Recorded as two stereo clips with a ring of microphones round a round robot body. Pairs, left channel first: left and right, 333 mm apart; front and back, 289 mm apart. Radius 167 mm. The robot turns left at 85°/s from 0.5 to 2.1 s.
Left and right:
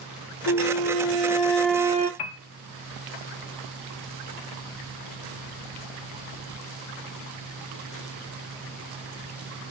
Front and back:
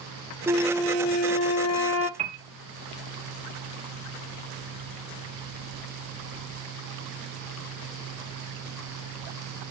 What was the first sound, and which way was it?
A flute, 100° left.